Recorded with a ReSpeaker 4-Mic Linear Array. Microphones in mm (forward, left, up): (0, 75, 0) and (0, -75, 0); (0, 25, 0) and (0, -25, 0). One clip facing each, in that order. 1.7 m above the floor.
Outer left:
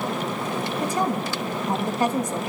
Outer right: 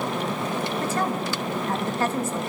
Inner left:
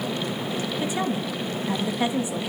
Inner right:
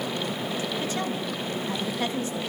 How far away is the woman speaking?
About 3 m.